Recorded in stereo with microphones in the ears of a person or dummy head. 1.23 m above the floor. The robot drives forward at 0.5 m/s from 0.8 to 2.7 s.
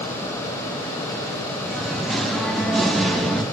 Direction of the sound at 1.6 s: Centre (ahead or behind).